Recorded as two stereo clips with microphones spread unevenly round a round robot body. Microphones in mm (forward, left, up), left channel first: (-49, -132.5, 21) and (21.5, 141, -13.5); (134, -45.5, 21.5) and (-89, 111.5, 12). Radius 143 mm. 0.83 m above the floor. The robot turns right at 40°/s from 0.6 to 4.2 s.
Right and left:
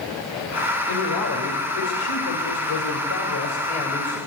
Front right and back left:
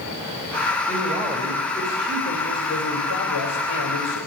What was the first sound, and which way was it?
A man speaking, 155° right.